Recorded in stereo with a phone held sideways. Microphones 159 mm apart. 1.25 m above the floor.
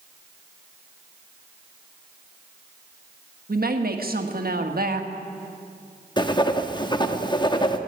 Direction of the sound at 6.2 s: 30° left (ahead or behind).